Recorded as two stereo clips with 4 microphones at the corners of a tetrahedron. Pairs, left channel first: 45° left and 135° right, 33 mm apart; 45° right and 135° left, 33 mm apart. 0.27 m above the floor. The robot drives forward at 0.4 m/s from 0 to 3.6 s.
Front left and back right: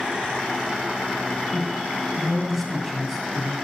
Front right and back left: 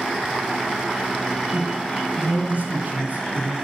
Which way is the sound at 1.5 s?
125° left.